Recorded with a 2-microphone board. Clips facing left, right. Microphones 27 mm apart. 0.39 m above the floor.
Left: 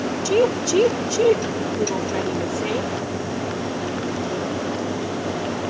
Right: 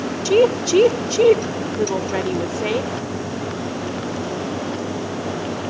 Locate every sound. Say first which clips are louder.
0.2 s a woman speaking: right 4 dB; 20° right (ahead or behind), 0.9 m